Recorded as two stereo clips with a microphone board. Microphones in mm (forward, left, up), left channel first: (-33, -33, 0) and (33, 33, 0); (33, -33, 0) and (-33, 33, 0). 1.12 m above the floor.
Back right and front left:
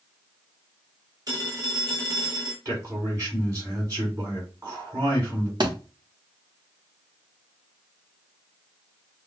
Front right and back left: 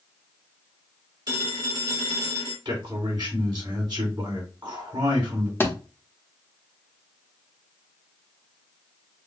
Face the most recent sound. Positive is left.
turn(degrees=15)